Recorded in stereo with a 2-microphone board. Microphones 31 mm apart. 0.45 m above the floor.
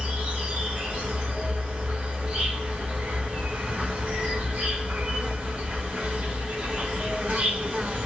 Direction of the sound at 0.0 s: 40° right (ahead or behind).